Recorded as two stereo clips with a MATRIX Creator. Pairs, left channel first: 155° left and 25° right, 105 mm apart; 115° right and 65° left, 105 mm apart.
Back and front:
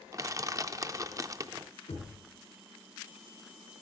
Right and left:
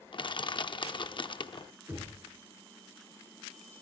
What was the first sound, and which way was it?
Crushing, 75° right.